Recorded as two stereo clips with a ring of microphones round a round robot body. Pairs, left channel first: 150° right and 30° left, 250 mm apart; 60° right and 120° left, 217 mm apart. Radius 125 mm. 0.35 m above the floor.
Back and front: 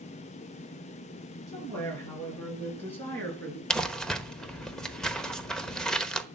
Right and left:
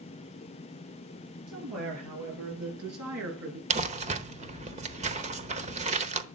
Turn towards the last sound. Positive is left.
turn(degrees=125)